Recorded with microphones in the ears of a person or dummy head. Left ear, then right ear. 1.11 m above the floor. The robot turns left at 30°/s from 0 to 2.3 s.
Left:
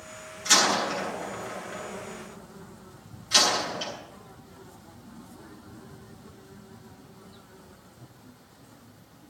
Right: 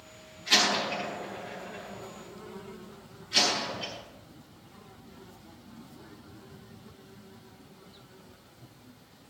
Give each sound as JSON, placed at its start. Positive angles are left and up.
{"t": 0.5, "sound": "a door slam", "side_deg": 65, "distance_m": 8.5}